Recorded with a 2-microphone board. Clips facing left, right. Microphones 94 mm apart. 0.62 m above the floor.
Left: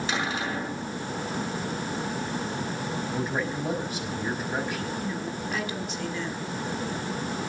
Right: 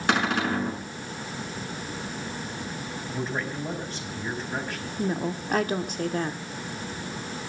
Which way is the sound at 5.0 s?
50° right (ahead or behind).